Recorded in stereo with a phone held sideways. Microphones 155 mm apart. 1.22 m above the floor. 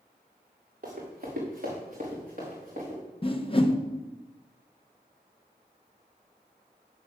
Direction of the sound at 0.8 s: 65° right (ahead or behind).